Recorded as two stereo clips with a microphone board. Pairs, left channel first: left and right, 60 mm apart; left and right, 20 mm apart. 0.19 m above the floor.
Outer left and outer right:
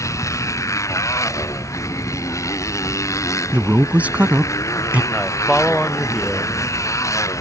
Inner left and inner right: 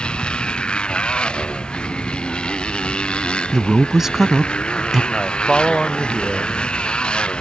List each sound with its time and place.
0.0 s a motorcycle: 55° left (ahead or behind)
3.5 s a man speaking: 25° right (ahead or behind)
5.1 s a man speaking: centre (ahead or behind)